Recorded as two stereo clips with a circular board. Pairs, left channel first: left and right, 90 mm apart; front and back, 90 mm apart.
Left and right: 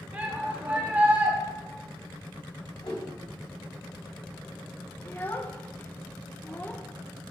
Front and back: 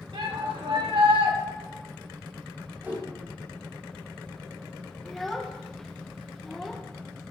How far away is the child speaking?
About 0.8 m.